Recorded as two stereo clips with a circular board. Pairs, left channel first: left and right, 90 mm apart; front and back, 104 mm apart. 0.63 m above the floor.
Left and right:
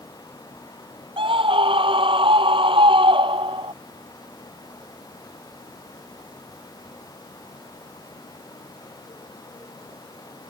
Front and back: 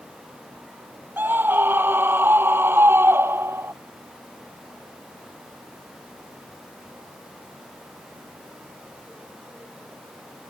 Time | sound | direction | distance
1.2 | a scream | 110° right | ?